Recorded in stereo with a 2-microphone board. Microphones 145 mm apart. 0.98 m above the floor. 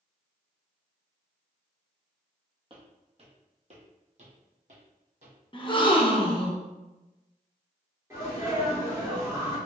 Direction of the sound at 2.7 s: 35° right (ahead or behind).